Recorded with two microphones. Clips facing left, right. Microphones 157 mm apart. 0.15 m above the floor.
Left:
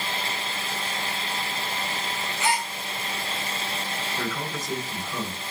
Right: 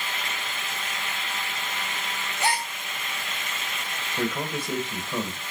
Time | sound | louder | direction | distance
2.4 | a gasp | left 1 dB | 40° right (ahead or behind) | 2.0 m
4.2 | a man speaking | right 6 dB | 30° right (ahead or behind) | 2.5 m